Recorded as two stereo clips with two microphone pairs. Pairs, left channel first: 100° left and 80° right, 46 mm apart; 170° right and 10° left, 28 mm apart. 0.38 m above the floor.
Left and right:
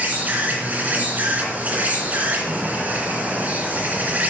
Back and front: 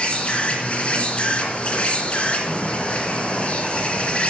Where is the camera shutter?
I don't hear a camera shutter.